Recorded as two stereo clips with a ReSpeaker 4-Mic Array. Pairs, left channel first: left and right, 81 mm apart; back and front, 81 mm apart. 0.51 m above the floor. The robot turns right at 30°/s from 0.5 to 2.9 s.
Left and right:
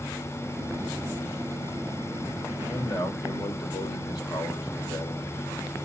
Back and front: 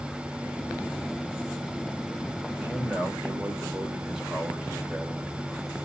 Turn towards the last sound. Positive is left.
turn(degrees=80)